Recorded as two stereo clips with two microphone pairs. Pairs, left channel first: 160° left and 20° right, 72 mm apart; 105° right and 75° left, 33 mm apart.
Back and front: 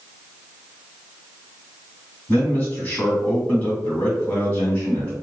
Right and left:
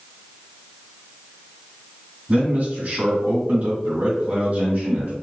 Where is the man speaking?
95° left, 1.8 m.